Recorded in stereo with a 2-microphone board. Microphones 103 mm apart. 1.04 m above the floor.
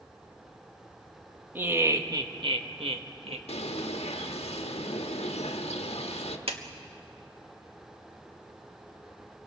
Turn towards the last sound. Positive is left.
turn(degrees=-70)  # may be behind; listen again after turning